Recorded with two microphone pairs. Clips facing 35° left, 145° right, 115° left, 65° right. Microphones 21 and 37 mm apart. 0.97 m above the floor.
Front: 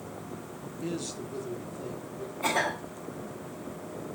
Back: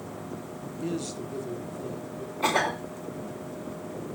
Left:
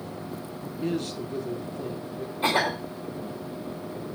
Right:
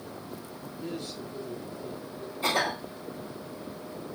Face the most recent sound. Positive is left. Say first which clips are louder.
# back 3 dB, left 3 dB
turn(degrees=170)